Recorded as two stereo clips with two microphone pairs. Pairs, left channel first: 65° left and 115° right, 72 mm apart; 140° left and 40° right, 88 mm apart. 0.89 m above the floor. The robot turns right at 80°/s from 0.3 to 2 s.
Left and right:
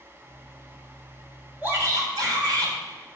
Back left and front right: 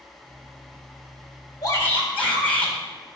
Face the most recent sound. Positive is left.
turn(degrees=-145)